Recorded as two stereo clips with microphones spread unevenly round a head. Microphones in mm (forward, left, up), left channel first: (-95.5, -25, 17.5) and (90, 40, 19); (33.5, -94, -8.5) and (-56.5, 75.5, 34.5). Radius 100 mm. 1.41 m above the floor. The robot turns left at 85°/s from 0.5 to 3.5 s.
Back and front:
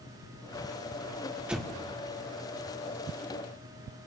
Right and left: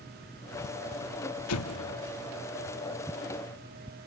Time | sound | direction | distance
1.5 | an explosion | 65° right | 1.6 m